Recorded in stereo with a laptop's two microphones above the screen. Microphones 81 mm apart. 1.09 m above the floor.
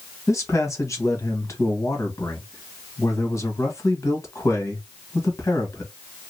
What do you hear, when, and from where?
0.3 s a man speaking: 40° left (ahead or behind), 1.6 m